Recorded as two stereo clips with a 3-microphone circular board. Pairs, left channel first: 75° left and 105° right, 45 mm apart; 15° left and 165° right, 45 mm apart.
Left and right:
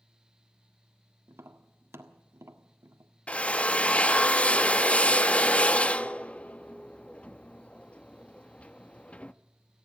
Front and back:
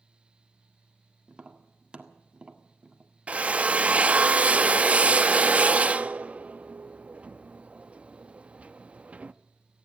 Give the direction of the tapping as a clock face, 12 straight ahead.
3 o'clock.